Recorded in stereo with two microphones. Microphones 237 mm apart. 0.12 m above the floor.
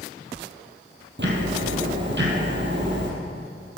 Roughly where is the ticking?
Right.